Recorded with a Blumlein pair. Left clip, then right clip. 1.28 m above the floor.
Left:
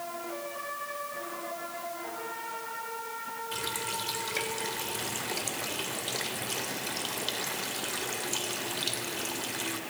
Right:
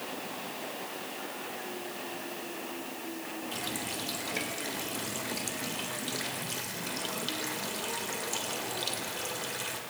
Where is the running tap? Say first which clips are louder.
Left 2 dB; 5° left, 3.5 m.